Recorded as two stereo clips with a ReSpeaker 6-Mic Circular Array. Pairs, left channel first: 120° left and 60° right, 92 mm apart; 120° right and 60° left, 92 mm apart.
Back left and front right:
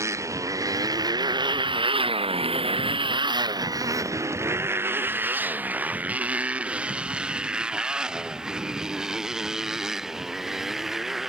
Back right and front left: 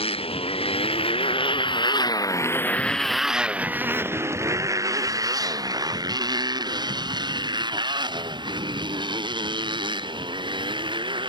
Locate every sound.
0.0 s a motorcycle: 120° right; by 11.3 s 25° left